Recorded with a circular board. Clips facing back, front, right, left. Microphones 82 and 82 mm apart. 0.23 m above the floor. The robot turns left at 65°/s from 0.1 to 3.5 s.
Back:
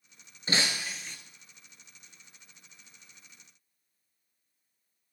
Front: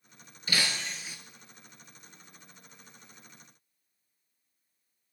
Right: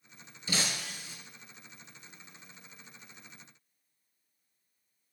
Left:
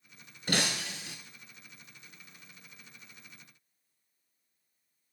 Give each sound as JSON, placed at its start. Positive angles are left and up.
{"t": 0.5, "sound": "breaking glass", "azimuth_deg": 120, "distance_m": 1.1}